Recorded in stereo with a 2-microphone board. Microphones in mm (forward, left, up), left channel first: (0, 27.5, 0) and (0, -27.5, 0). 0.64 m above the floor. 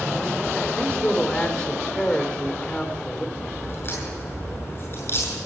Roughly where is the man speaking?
Left.